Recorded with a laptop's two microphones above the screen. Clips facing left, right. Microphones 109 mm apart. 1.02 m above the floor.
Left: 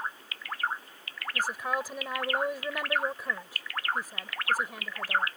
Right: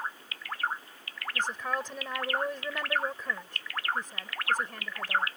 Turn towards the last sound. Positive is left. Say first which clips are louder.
# left 1 dB
turn(degrees=10)  # may be behind; listen again after turning